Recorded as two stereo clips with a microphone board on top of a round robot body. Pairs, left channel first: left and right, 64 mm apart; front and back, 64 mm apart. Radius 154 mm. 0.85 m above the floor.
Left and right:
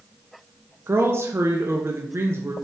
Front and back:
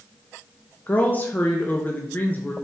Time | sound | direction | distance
0.9 | a woman speaking | 55° right | 1.2 m